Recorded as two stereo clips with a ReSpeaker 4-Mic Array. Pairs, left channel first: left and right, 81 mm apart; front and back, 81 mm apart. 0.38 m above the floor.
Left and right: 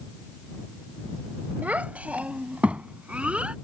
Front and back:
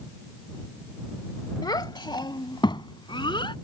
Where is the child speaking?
20° right; by 3.5 s 15° right.